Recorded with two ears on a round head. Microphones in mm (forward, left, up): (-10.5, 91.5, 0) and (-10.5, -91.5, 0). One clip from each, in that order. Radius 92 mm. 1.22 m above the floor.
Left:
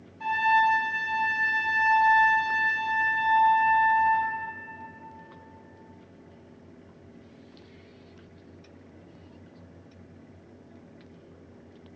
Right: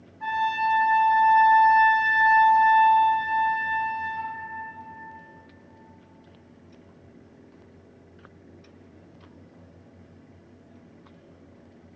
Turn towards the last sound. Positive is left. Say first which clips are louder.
# left 3 dB
turn(degrees=70)  # may be behind; listen again after turning